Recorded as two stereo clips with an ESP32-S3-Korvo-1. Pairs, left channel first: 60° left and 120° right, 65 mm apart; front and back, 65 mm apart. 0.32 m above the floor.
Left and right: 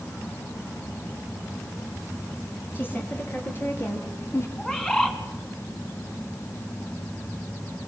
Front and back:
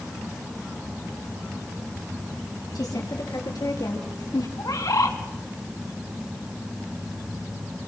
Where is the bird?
15° right, 3.5 m.